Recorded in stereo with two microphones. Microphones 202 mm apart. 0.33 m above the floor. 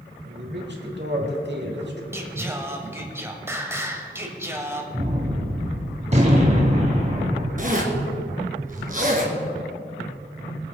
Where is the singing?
15° right (ahead or behind), 1.3 m.